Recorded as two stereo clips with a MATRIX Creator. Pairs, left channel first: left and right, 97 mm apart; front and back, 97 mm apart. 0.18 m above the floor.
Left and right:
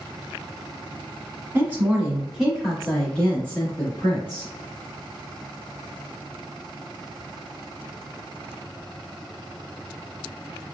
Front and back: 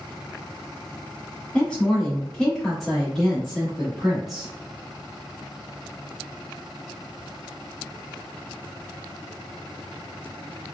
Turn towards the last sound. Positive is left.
turn(degrees=95)